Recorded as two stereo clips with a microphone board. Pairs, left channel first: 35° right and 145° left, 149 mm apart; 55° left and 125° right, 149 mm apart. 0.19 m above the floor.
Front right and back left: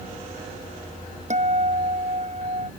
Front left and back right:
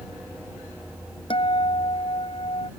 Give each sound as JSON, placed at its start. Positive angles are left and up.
{"t": 1.3, "sound": "a guitar", "azimuth_deg": 110}